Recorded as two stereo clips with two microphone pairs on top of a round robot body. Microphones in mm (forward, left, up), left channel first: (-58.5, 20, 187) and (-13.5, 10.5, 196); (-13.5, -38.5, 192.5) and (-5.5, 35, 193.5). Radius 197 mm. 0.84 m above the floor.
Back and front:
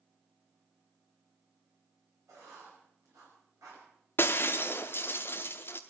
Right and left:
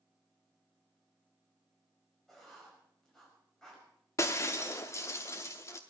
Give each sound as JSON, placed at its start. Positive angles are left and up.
{"t": 2.3, "sound": "writing", "azimuth_deg": -10, "distance_m": 5.5}
{"t": 4.2, "sound": "breaking glass", "azimuth_deg": -150, "distance_m": 0.8}